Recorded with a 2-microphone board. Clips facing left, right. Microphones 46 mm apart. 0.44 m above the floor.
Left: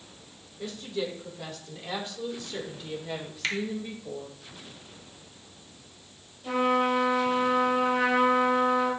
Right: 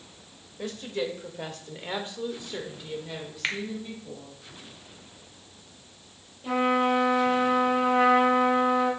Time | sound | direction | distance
0.6 | a woman speaking | 60° right (ahead or behind) | 1.8 m
3.4 | a finger snap | 25° right (ahead or behind) | 1.0 m
6.4 | a trumpet | 15° right (ahead or behind) | 3 m